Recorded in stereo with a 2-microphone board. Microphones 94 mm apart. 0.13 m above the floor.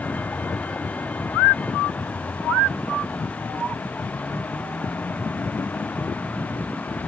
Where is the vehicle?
15° left (ahead or behind).